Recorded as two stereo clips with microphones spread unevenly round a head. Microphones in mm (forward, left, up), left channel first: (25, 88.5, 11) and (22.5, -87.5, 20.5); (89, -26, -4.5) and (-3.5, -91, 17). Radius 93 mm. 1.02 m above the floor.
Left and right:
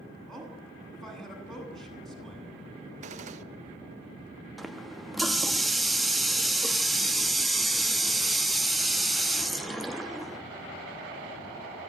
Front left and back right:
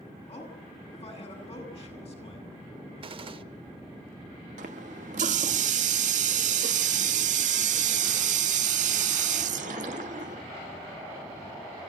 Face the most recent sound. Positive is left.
turn(degrees=180)